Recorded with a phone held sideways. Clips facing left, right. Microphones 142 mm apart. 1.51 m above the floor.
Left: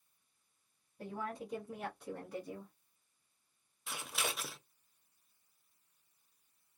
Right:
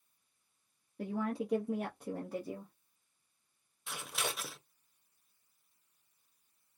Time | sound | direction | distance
1.0 | a woman speaking | 85° right | 0.9 m
3.9 | scissors | centre (ahead or behind) | 0.6 m